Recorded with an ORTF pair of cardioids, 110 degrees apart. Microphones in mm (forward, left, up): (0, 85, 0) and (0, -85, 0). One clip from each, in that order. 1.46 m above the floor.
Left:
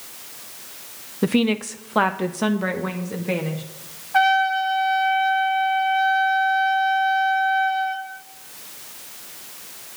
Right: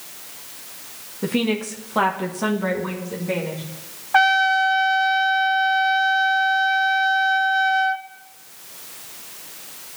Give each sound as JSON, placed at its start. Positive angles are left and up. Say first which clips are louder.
{"t": 1.2, "sound": "a woman speaking", "louder": "left 2 dB", "azimuth_deg": 40, "distance_m": 0.6}
{"t": 4.1, "sound": "a trumpet", "louder": "right 2 dB", "azimuth_deg": -50, "distance_m": 1.1}